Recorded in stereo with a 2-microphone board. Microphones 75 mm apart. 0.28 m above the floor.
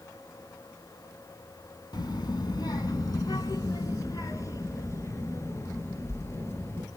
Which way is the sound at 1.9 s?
70° left (ahead or behind).